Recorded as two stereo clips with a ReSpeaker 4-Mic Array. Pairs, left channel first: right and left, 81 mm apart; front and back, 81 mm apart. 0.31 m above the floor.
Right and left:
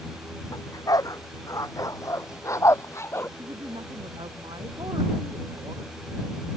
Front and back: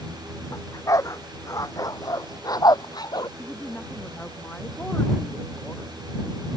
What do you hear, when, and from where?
0.5 s a dog barking: 50° right; by 3.3 s 30° right
3.4 s a woman speaking: 70° left